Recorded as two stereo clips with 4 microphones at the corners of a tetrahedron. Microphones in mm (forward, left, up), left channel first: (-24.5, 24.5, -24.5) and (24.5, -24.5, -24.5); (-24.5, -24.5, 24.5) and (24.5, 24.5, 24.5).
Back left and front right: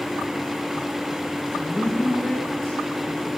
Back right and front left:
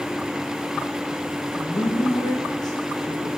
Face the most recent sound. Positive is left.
turn(degrees=-140)